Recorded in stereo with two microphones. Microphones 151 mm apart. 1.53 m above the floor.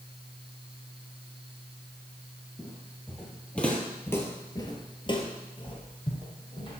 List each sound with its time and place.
2.6 s footsteps: 5° right (ahead or behind), 3 m; by 6.8 s 35° left (ahead or behind), 3 m